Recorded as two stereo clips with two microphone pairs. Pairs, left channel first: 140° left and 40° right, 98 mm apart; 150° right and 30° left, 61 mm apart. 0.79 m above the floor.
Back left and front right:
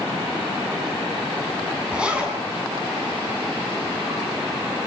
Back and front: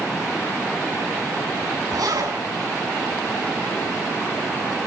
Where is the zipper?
40° left, 8.5 m.